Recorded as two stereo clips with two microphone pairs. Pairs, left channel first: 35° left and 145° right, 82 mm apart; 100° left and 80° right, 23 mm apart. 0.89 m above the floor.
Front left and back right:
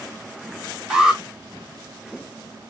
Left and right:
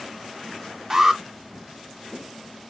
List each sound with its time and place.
0.9 s an alarm: 70° right, 0.8 m